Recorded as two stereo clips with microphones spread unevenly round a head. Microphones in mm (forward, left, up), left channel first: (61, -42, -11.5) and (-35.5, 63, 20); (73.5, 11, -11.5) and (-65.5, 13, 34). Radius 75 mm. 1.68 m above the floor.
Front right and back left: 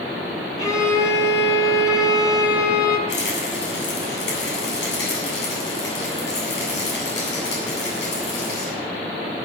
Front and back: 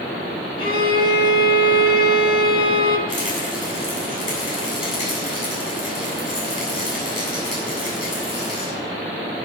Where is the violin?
20° left, 4 m.